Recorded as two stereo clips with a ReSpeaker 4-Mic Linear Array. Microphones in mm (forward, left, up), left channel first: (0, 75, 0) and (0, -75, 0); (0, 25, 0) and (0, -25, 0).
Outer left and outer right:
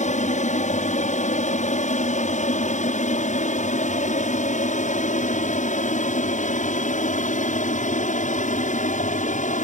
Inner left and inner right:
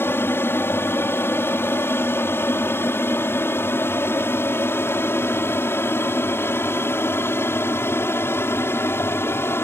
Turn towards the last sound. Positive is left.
turn(degrees=65)  # may be behind; listen again after turning